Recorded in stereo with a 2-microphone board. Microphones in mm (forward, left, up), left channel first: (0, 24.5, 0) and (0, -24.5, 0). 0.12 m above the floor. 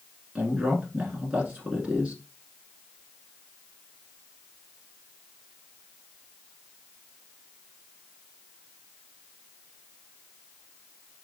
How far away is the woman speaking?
About 1.3 m.